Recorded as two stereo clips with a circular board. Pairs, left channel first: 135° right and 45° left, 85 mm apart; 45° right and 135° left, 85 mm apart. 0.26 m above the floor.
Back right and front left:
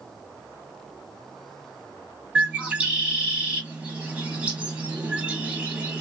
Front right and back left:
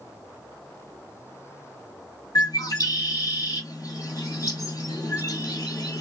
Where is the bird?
25° right, 1.3 m.